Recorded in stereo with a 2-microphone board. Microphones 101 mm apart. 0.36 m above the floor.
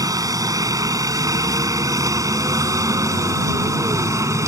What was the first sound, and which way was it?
A helicopter, 35° right (ahead or behind).